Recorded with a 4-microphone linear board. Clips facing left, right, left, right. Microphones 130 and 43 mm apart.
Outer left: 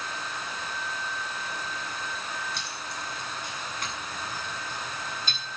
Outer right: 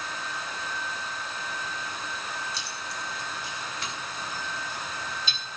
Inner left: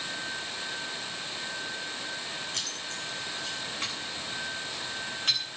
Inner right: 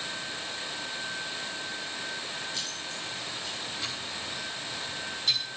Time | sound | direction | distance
2.5 | keys jangling | 60° left (ahead or behind) | 6 m